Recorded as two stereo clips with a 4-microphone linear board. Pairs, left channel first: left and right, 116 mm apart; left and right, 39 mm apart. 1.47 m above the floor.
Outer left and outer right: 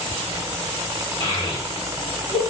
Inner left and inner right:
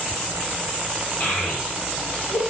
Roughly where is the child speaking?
Left.